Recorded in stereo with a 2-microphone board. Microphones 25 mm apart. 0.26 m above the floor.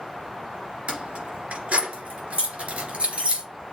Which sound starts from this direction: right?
Keys jangling, at 0.9 s.